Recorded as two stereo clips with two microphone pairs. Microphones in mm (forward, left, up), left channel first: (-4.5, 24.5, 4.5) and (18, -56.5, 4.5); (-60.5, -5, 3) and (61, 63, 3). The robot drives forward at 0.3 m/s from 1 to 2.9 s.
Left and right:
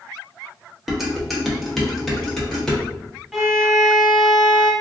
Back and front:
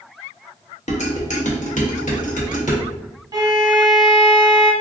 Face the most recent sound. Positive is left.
turn(degrees=10)